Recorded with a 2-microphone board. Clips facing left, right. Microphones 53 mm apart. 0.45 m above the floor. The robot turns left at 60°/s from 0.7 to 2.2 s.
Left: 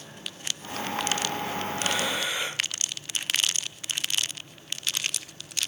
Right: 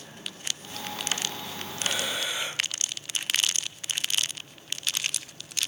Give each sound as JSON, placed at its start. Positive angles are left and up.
{"t": 1.8, "sound": "breathing", "side_deg": 50, "distance_m": 2.5}